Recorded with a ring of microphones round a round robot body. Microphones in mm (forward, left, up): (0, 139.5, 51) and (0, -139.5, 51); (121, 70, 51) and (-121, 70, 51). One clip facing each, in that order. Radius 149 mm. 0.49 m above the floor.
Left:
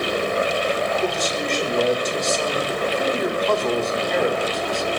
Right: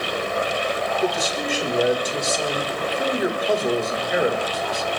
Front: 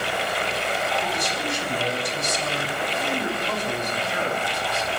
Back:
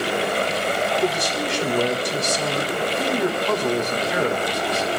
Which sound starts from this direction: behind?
A man speaking, at 1.0 s.